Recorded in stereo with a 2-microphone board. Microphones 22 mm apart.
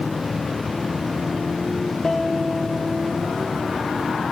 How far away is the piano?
About 2.5 m.